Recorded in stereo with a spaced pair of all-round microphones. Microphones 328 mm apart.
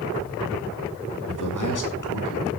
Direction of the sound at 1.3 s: 70° left (ahead or behind).